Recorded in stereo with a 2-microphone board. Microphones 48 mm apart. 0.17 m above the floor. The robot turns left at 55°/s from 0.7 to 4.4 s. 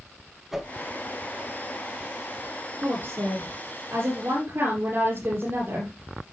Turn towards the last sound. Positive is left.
turn(degrees=-125)